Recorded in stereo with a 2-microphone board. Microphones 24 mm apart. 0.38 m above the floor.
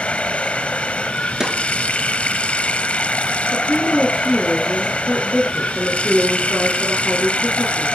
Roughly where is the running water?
Left.